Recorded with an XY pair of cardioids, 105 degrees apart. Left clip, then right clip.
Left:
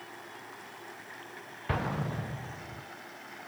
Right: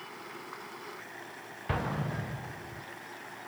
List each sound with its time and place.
1.7 s an explosion: 15° left, 0.5 m